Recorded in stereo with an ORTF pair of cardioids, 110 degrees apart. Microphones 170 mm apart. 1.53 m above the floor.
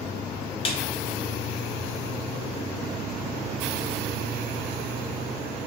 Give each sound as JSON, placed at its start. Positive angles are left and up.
{"t": 0.7, "sound": "a snare drum", "azimuth_deg": 30, "distance_m": 0.6}